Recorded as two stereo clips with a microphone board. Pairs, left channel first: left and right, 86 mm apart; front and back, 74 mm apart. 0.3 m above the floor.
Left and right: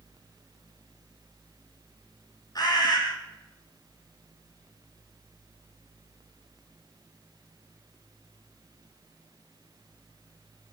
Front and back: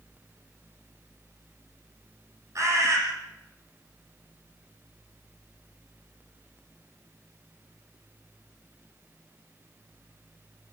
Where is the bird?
130° left, 4.5 m.